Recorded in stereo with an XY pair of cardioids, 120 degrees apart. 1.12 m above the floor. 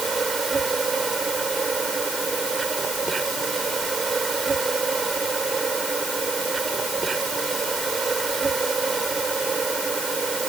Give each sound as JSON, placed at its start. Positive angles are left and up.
{"t": 0.0, "sound": "an insect", "azimuth_deg": -25}